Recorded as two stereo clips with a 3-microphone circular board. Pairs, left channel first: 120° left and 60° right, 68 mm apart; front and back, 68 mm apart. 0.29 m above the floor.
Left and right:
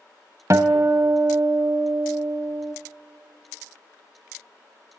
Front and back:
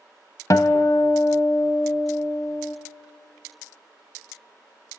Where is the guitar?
30° right, 0.6 m.